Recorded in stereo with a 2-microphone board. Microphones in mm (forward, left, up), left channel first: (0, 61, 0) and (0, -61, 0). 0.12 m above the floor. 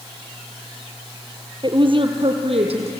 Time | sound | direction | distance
1.6 | a woman speaking | 40° right (ahead or behind) | 2.5 m